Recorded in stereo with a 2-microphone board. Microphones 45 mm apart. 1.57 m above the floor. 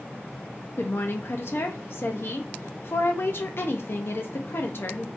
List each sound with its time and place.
0.8 s a woman speaking: 55° left (ahead or behind), 0.5 m